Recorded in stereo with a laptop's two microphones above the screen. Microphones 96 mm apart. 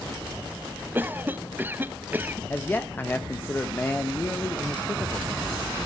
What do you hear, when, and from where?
0.9 s a cough: 20° right (ahead or behind), 0.6 m
2.5 s a man speaking: 20° left (ahead or behind), 1.0 m